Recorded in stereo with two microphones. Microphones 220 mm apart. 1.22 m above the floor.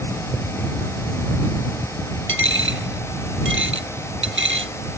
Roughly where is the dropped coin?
Right.